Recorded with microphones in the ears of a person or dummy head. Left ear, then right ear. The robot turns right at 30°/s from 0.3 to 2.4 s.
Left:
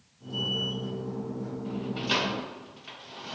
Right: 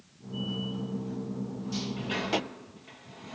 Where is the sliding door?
35° left (ahead or behind), 0.7 m; by 3.4 s 55° left (ahead or behind), 0.7 m.